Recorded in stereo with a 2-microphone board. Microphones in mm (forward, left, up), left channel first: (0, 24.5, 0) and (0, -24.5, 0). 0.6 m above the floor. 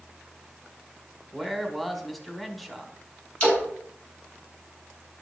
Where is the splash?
30° left (ahead or behind), 4 m.